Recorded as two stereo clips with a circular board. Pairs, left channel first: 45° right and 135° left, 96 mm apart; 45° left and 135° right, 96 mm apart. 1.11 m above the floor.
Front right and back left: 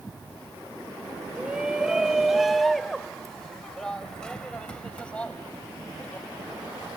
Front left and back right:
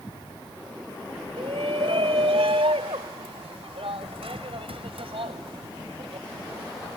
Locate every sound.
1.4 s a shout: 145° right; by 6.3 s 120° right